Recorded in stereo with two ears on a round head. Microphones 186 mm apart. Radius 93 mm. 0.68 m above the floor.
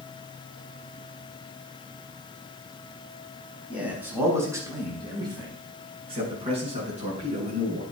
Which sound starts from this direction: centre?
A man speaking, at 3.7 s.